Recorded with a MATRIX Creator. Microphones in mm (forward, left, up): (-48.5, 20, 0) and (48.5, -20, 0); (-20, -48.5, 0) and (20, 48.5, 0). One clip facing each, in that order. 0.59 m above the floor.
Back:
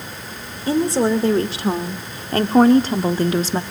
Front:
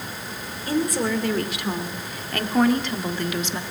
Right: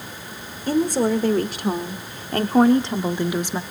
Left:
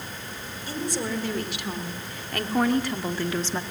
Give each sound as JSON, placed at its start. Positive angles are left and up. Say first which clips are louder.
{"t": 0.7, "sound": "a woman speaking", "louder": "back 6 dB, right 11 dB", "azimuth_deg": -145, "distance_m": 2.5}